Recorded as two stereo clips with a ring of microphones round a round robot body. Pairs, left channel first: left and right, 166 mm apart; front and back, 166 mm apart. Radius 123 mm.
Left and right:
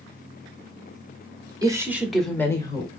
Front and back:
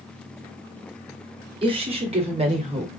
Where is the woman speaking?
145° right, 1.3 m; by 2.9 s 145° left, 1.4 m.